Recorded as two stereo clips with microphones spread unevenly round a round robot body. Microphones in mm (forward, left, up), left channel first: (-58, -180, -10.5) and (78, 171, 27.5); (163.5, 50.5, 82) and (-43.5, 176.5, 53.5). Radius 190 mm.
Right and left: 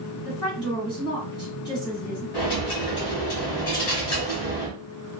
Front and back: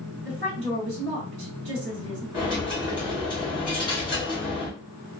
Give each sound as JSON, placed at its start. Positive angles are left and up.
{"t": 0.2, "sound": "a woman speaking", "azimuth_deg": 165, "distance_m": 1.6}
{"t": 2.3, "sound": "a dropped coin", "azimuth_deg": -100, "distance_m": 1.6}